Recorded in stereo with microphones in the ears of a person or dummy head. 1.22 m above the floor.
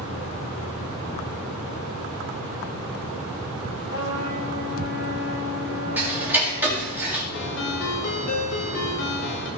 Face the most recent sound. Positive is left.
turn(degrees=75)  # may be behind; listen again after turning